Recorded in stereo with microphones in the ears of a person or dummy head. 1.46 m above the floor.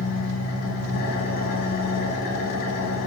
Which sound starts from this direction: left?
An engine running, at 0.0 s.